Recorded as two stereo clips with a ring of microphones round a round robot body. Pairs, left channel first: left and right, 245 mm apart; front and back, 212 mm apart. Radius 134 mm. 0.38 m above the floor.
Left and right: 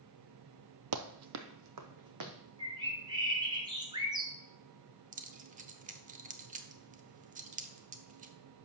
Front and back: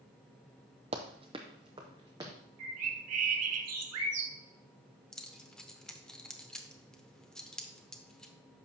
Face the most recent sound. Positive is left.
turn(degrees=-85)